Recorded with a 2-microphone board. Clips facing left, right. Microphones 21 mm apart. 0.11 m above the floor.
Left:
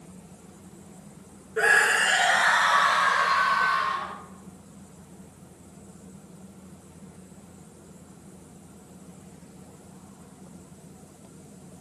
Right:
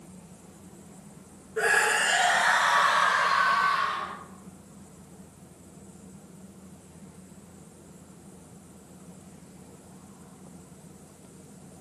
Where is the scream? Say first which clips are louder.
Left 3 dB; 20° left (ahead or behind), 1.4 m; by 4.1 s 5° left (ahead or behind), 2.5 m.